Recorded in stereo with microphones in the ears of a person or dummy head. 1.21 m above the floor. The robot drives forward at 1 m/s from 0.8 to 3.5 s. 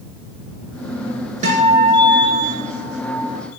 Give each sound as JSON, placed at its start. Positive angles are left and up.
{"t": 1.4, "sound": "a guitar", "side_deg": -45, "distance_m": 4.0}